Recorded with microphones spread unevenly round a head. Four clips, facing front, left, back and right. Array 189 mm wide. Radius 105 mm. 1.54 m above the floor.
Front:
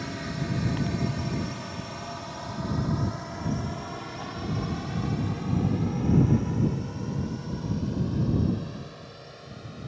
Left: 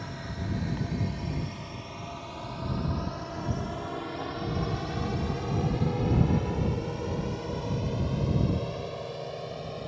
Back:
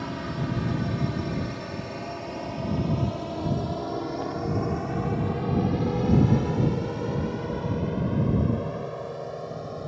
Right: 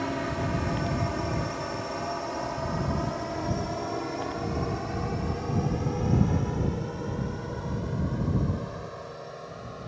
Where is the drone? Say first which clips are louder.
Right 9 dB, back 2 dB; 115° right; by 9.9 s 165° left.